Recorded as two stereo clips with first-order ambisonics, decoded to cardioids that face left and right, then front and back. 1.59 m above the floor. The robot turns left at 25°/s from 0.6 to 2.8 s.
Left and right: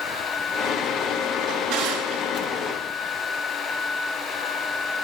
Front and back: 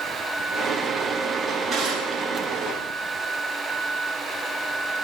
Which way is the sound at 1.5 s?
80° right.